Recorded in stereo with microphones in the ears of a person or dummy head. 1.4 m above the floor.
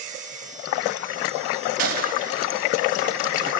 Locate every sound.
1.8 s a gunshot: 50° right (ahead or behind), 3 m